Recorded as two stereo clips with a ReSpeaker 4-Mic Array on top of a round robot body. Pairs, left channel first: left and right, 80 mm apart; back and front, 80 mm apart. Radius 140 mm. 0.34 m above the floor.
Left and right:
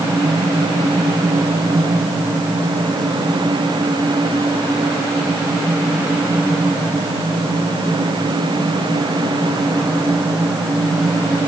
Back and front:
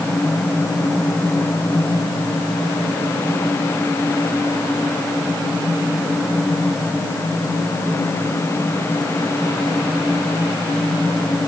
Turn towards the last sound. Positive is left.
No sound to turn to.